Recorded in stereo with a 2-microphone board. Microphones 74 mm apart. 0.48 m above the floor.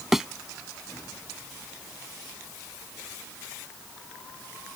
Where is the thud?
5° right (ahead or behind).